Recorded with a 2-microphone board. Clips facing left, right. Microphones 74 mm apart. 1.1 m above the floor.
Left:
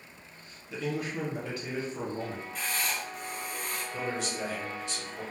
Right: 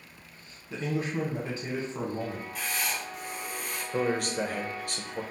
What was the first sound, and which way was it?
A man speaking, 25° right (ahead or behind).